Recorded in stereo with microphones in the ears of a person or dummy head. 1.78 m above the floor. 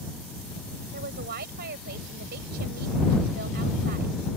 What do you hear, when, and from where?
0.9 s a woman speaking: 55° right (ahead or behind)